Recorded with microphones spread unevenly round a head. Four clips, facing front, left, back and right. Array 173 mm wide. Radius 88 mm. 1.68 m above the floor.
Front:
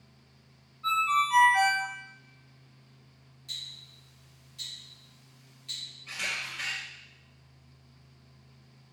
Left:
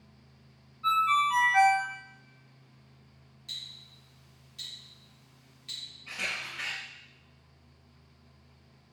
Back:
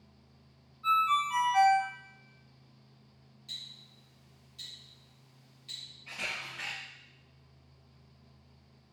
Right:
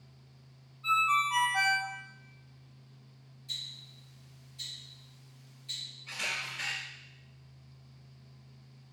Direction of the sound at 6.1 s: 135° left.